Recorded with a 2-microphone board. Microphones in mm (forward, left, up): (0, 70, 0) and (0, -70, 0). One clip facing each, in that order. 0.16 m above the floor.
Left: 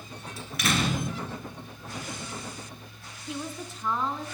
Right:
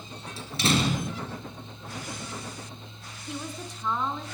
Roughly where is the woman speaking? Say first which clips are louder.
Left 1 dB; centre.